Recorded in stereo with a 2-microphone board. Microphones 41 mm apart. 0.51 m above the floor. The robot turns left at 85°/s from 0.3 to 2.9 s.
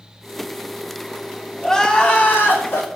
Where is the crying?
175° left, 3 m; by 2.9 s 70° left, 3 m.